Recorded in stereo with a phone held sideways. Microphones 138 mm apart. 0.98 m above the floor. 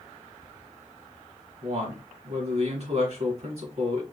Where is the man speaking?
50° right (ahead or behind), 2.5 m.